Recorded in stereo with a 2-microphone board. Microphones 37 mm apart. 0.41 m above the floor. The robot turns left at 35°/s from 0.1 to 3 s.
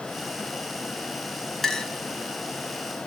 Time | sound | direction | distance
1.6 | a clink | 5° left (ahead or behind) | 1.9 m